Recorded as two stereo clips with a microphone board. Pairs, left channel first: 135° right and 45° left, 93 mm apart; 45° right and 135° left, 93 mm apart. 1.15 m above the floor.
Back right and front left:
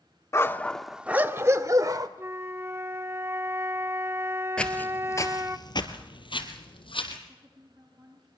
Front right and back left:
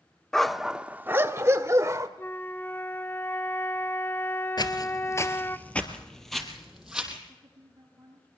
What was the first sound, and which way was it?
A dog barking, 125° right.